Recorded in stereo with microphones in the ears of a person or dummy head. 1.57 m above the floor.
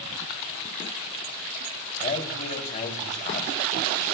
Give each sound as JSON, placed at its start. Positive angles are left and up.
{"t": 2.0, "sound": "a man speaking", "side_deg": 40, "distance_m": 3.0}